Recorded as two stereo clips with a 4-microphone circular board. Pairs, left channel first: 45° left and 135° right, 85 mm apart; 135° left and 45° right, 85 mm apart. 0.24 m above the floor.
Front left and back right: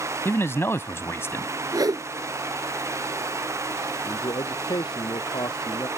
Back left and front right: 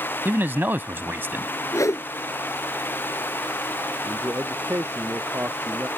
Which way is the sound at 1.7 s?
175° right.